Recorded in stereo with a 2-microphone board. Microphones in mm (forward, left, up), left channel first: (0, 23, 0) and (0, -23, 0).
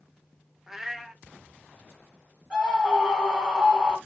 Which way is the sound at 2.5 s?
10° right (ahead or behind).